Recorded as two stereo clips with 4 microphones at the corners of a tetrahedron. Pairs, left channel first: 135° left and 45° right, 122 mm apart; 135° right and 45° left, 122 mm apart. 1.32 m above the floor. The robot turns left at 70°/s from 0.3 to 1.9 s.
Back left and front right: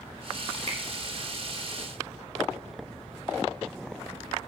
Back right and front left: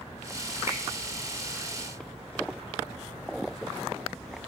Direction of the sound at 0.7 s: 20° right.